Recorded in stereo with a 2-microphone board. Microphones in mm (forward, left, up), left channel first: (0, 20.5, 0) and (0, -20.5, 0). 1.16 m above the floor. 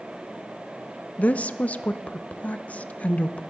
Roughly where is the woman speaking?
Left.